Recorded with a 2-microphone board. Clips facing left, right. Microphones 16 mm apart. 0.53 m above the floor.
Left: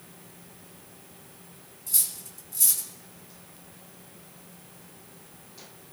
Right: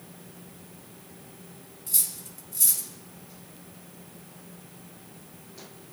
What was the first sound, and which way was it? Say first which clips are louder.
Cutlery clinking: even; 5° left (ahead or behind).